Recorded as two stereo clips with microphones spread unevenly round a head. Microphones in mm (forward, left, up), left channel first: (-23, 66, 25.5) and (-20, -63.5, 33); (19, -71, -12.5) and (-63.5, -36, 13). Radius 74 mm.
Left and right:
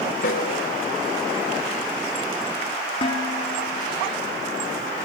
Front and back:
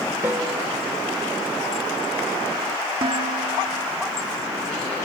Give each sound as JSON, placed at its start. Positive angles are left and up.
{"t": 0.2, "sound": "a snare drum", "azimuth_deg": 100, "distance_m": 2.5}
{"t": 3.0, "sound": "dishes clattering", "azimuth_deg": 140, "distance_m": 2.5}